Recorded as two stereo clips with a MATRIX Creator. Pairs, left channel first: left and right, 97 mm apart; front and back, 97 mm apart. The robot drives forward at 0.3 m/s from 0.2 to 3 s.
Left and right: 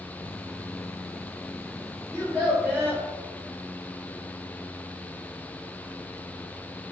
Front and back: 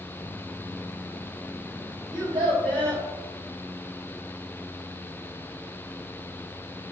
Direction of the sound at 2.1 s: 160° right.